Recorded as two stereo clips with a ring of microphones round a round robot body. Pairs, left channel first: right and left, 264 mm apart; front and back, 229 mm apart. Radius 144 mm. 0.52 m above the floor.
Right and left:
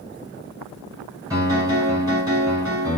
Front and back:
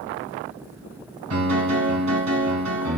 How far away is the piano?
About 1.8 m.